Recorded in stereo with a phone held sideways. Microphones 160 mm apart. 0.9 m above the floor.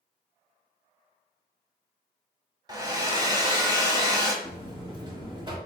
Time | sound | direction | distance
2.7 | a hair dryer | 25° right (ahead or behind) | 0.8 m
4.4 | a buzzer | 30° right (ahead or behind) | 0.9 m